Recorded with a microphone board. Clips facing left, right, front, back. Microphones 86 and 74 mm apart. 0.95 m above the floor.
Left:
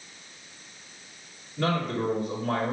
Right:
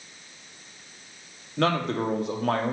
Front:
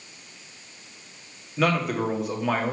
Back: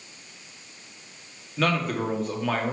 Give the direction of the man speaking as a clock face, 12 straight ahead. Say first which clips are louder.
Right 3 dB, front 2 dB; 3 o'clock.